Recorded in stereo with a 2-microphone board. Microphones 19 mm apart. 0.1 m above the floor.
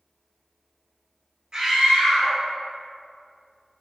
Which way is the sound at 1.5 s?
45° right (ahead or behind).